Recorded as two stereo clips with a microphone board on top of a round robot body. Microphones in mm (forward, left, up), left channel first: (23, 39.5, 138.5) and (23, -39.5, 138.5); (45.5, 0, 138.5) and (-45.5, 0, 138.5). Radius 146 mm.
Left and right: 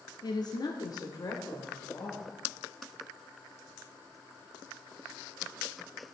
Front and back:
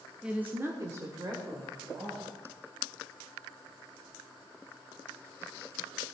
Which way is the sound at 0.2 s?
100° left.